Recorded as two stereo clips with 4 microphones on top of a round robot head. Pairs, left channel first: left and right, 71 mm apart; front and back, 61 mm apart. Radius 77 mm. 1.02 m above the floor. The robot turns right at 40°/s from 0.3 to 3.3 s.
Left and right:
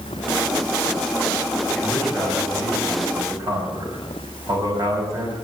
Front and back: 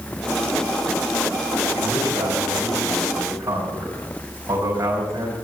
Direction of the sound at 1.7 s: 170° left.